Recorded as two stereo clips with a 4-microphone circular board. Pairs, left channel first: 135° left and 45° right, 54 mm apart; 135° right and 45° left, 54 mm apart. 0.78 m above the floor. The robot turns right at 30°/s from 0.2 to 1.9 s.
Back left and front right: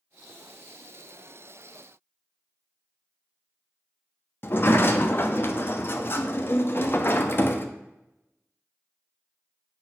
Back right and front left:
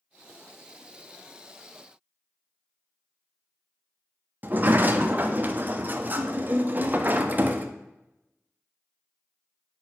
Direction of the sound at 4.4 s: 95° left.